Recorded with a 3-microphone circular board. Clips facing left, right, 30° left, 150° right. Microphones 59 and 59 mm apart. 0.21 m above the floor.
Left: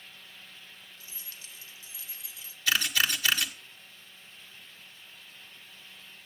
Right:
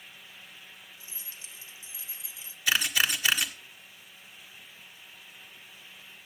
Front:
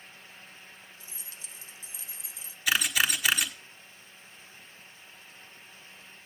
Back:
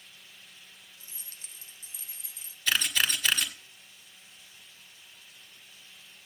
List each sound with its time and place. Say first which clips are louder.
1.0 s keys jangling: right 1 dB, front 3 dB; 150° right, 1.1 m
2.7 s a camera shutter: right 1 dB, front 1 dB; 35° right, 1.3 m